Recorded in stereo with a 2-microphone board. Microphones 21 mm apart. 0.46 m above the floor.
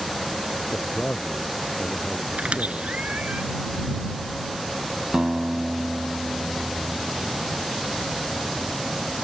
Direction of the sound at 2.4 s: 85° right.